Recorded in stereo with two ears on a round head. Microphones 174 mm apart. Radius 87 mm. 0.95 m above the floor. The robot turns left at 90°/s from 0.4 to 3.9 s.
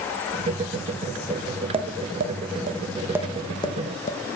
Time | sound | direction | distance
1.7 | tapping | 30° right (ahead or behind) | 1.0 m